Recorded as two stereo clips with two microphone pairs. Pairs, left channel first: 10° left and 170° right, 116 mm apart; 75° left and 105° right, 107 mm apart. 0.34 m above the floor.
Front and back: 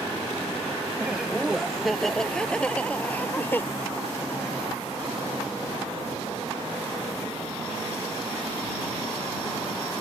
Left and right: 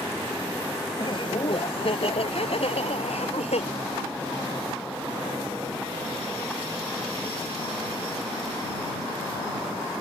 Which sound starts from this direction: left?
Laughter, at 0.9 s.